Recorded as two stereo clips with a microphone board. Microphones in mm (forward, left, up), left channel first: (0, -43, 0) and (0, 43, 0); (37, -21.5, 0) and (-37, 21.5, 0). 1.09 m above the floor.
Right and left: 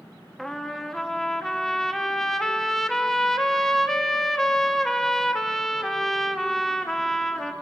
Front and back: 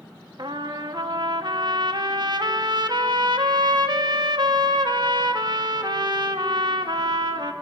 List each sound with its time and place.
0.4 s a trumpet: 175° right, 1.3 m